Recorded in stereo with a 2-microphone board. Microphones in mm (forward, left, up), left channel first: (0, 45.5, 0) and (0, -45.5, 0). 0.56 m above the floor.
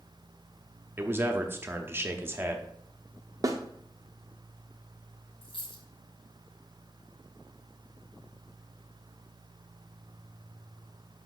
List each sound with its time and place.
1.0 s a man speaking: 25° right (ahead or behind), 0.8 m
3.4 s a snare drum: 40° right (ahead or behind), 0.8 m
5.4 s a dropped coin: 80° left, 1.7 m